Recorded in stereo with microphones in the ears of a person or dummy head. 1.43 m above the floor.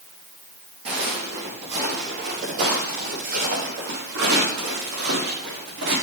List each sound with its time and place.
0.8 s footsteps: 35° right (ahead or behind), 5 m; by 5.9 s 65° right (ahead or behind), 7 m